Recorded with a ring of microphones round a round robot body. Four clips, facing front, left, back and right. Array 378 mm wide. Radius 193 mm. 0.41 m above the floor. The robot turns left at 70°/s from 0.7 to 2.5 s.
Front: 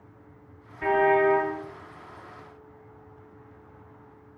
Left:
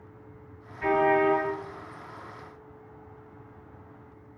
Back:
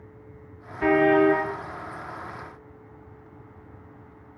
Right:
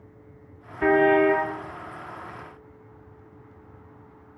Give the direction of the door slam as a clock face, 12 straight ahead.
I don't hear a door slam.